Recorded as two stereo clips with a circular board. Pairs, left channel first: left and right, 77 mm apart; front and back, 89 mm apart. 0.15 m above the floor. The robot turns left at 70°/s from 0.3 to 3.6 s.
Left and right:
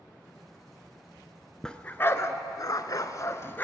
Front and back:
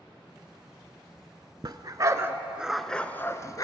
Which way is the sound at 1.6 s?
170° left.